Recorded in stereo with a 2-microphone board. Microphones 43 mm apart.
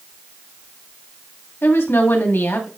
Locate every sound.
1.6 s a woman speaking: 65° left (ahead or behind), 3 m